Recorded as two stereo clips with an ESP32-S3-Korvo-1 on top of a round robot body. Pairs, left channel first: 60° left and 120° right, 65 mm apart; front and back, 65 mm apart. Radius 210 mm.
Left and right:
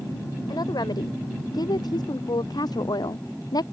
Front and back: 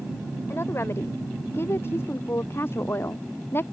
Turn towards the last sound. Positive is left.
turn(degrees=55)